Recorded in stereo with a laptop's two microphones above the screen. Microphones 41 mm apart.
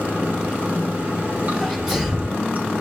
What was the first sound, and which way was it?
Running water, 40° right (ahead or behind).